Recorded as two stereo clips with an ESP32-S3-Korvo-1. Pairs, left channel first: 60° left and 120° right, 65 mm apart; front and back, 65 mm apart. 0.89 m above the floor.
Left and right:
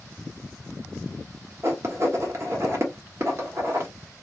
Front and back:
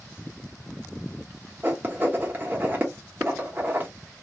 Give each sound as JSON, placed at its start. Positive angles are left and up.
{"t": 1.6, "sound": "writing", "azimuth_deg": -130, "distance_m": 1.3}